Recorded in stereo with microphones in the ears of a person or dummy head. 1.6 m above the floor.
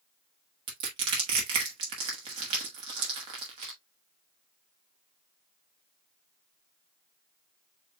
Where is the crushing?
25° right (ahead or behind), 1.1 m.